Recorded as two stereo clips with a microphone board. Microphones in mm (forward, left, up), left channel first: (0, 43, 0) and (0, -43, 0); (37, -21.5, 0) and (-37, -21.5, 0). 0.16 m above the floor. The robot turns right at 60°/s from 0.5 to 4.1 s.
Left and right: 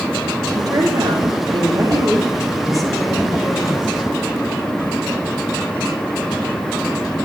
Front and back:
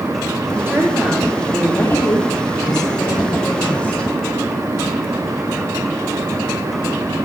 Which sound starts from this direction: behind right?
A woman speaking, at 0.6 s.